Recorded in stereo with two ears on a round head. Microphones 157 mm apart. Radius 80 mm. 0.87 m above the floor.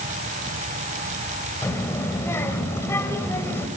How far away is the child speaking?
About 2.5 m.